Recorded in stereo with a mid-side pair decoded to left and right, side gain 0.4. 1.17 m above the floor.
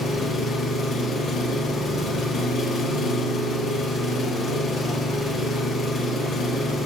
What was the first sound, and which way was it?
An engine running, 60° left.